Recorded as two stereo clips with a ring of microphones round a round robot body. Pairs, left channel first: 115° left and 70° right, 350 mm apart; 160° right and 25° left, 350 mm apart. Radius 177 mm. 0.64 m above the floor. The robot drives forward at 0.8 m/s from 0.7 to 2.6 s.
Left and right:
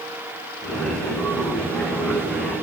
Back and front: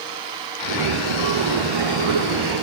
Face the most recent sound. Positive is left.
No sound to turn to.